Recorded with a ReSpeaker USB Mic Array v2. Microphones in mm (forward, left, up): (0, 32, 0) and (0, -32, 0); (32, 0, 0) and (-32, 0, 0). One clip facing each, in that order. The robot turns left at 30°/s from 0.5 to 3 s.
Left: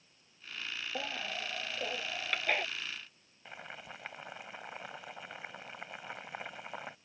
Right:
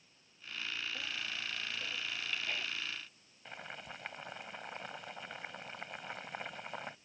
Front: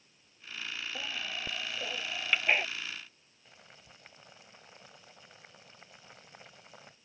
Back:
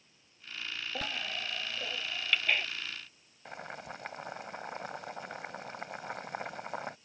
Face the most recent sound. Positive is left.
turn(degrees=175)